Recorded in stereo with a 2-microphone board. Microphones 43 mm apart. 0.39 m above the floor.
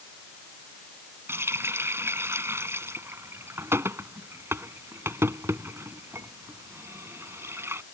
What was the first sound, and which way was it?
A running tap, 75° right (ahead or behind).